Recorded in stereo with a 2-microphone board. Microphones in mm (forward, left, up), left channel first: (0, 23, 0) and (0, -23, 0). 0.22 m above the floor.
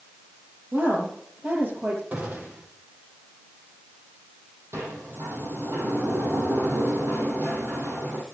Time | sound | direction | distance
0.7 | a woman speaking | 50° right (ahead or behind) | 7 m
2.1 | a gunshot | 40° right (ahead or behind) | 4.5 m
4.7 | a sliding door | 75° right (ahead or behind) | 3.5 m